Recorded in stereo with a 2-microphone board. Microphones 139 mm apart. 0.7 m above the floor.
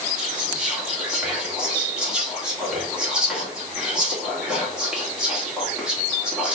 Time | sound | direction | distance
0.2 | whispering | 5° right (ahead or behind) | 1.4 m